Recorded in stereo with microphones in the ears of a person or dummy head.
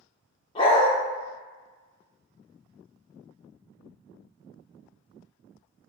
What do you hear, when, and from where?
0.6 s a dog barking: 30° left (ahead or behind), 1.1 m